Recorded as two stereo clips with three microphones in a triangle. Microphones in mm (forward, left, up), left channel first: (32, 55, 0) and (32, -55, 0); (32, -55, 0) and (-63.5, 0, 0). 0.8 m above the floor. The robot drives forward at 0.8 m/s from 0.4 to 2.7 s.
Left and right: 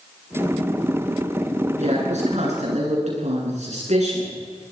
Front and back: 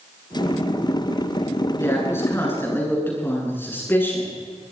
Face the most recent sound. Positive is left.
turn(degrees=-100)